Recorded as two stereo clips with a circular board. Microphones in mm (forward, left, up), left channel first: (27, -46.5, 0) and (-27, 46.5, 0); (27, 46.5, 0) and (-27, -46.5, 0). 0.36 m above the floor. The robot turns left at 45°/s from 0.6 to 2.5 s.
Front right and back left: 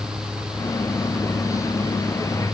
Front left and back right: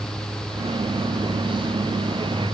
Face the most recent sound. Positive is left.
No sound to turn to.